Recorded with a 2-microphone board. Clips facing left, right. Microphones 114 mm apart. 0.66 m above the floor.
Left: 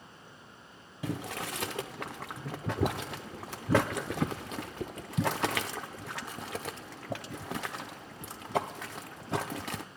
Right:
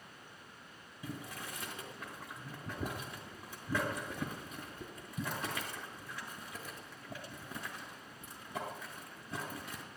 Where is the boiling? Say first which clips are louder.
Left 9 dB; 80° left, 0.6 m.